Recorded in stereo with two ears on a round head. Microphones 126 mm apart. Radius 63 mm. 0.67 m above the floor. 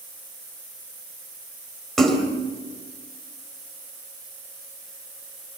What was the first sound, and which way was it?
A splash, 5° left (ahead or behind).